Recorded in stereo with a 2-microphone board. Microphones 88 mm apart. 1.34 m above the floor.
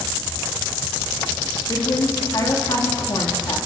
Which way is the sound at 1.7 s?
50° left (ahead or behind).